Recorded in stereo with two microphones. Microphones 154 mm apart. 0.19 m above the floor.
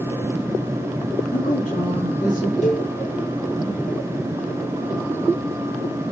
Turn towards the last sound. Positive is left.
turn(degrees=45)  # may be behind; listen again after turning